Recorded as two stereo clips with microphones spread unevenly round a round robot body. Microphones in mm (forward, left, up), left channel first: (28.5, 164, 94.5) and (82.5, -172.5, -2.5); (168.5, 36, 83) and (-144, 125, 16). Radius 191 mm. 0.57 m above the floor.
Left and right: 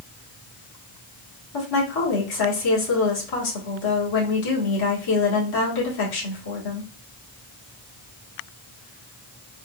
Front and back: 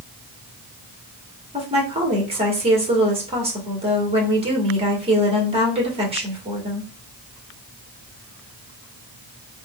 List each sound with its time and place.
1.5 s a woman speaking: 105° left, 1.8 m